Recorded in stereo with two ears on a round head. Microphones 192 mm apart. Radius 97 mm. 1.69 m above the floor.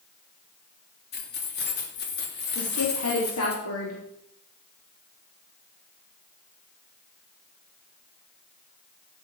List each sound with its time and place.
1.1 s keys jangling: 50° left (ahead or behind), 2.5 m
2.5 s a woman speaking: 80° left, 4.5 m